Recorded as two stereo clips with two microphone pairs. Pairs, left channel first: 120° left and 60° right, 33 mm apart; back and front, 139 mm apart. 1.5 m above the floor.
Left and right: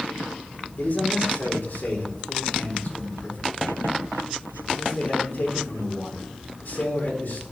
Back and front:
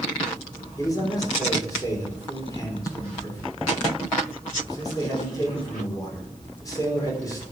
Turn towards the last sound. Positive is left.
turn(degrees=115)